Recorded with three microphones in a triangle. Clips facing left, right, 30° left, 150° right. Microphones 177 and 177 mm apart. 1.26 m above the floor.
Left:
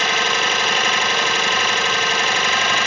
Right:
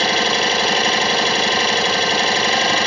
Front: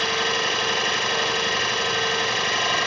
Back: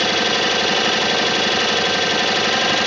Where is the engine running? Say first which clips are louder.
Right 4 dB, back 6 dB; 150° right, 1.6 m.